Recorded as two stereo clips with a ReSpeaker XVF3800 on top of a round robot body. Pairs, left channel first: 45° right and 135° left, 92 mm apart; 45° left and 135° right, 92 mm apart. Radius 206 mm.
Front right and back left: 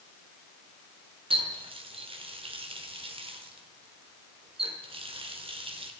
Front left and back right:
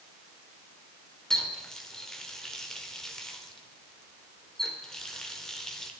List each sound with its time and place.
1.3 s a running tap: 130° left, 1.9 m